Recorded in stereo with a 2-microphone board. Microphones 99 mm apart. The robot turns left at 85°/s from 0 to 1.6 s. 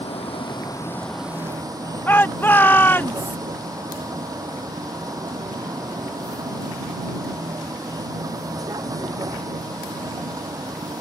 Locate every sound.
0.0 s a vehicle: 100° left; by 11.0 s 40° right
2.1 s a shout: 20° left (ahead or behind)